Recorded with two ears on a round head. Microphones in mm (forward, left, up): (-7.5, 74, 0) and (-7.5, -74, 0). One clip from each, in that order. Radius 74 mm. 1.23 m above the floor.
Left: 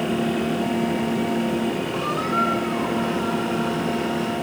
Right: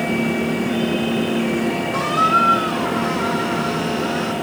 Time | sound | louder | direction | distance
1.9 | a squeak | right 9 dB | 65° right (ahead or behind) | 3 m